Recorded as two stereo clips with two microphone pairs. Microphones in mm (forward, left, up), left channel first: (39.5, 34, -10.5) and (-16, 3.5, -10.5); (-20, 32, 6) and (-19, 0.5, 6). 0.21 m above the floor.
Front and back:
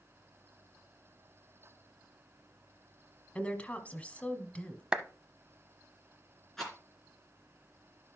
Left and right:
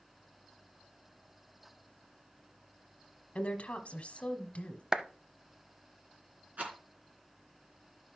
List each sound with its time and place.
3.4 s a woman speaking: 85° left, 1.3 m
4.9 s a clap: 105° right, 0.7 m
6.6 s a rattle: 55° right, 3 m